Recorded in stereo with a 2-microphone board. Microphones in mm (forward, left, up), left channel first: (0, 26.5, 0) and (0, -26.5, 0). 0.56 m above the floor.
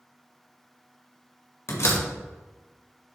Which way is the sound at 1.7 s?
65° left (ahead or behind).